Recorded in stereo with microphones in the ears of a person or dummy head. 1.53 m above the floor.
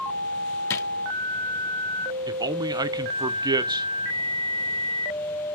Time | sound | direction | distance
0.7 | a drawer | 15° left (ahead or behind) | 0.7 m
2.3 | a man speaking | 20° right (ahead or behind) | 0.8 m